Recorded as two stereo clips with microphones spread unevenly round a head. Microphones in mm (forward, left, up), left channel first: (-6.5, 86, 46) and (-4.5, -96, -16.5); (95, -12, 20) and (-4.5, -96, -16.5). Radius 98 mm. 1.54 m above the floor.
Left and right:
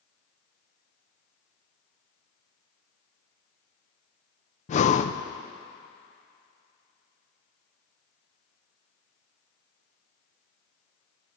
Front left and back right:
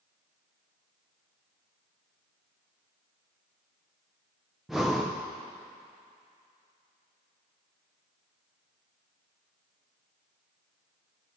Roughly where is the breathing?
Behind left.